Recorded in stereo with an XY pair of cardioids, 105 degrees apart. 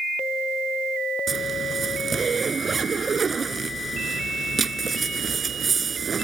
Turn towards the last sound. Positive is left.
turn(degrees=-35)